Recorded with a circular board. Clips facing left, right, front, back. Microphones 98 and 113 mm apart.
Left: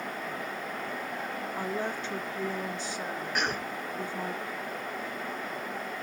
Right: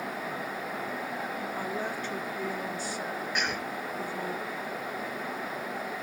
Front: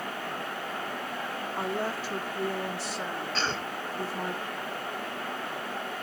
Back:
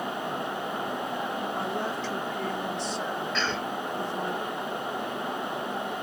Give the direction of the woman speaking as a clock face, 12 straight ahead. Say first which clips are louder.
Left 3 dB, back 1 dB; 10 o'clock.